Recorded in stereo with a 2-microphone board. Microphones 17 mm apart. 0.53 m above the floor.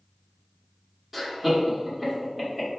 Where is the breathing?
I don't hear breathing.